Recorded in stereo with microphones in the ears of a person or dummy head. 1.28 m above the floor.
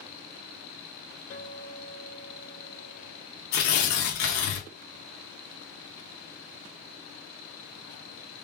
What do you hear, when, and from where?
1.3 s a guitar: 45° left (ahead or behind), 2.5 m
3.5 s tearing paper: 50° left (ahead or behind), 1.1 m